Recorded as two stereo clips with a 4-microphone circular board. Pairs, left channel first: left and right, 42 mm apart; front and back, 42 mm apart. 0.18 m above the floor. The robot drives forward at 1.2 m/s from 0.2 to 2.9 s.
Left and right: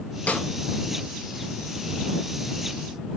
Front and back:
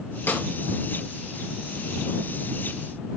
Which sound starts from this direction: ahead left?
A snare drum, at 0.3 s.